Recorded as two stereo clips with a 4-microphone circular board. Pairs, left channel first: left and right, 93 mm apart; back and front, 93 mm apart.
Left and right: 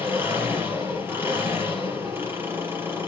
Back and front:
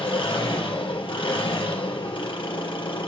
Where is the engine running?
155° right, 3.5 m.